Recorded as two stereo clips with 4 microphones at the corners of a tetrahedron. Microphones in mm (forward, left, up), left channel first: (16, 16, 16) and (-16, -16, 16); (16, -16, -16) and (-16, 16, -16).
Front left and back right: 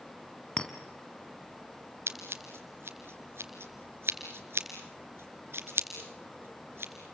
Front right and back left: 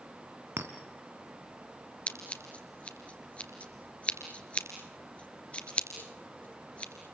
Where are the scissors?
105° right, 2.5 m.